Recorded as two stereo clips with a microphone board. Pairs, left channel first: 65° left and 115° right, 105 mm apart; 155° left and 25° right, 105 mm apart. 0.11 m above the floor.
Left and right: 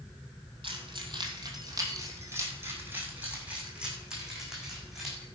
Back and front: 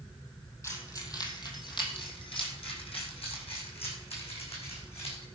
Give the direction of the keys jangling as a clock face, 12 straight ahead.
5 o'clock.